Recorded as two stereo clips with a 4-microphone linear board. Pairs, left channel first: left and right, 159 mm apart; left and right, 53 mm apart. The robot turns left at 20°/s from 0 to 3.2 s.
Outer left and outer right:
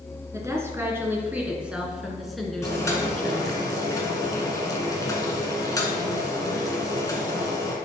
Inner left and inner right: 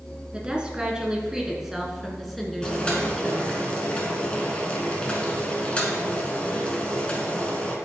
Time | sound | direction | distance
0.3 | a woman speaking | 140° right | 1.5 m
2.6 | boiling | 20° left (ahead or behind) | 1.4 m